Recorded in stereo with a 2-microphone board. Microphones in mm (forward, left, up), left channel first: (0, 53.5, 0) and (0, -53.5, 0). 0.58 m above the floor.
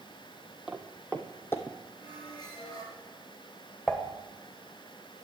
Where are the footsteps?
5° right (ahead or behind), 1.4 m; by 1.8 s 30° left (ahead or behind), 1.5 m.